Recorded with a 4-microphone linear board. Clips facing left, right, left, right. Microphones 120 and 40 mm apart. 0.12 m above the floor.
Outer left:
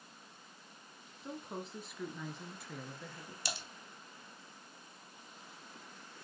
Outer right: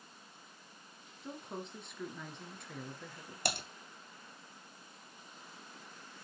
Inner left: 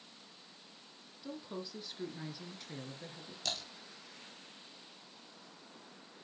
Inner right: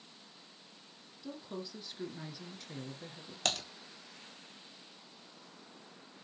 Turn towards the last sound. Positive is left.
turn(degrees=-60)  # may be behind; listen again after turning